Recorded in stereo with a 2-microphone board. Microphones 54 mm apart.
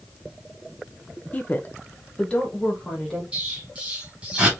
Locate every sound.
1.3 s a woman speaking: 30° left (ahead or behind), 0.6 m; by 3.2 s 15° left (ahead or behind), 1.8 m
3.3 s an explosion: 20° right (ahead or behind), 2.5 m